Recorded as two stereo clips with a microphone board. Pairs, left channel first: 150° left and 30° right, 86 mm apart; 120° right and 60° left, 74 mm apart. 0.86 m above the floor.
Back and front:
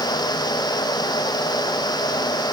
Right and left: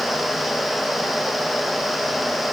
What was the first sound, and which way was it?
Only background noise.